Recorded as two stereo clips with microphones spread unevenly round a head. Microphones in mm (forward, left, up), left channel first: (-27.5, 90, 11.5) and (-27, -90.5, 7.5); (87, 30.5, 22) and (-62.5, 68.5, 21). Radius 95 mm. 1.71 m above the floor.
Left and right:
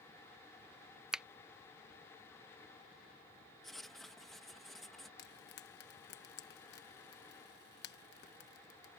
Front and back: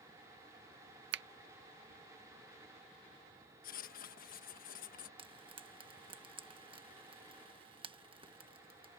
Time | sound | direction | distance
1.1 | a finger snap | 175° right | ?
3.6 | writing | 5° left | ?
5.2 | frying | 110° left | ?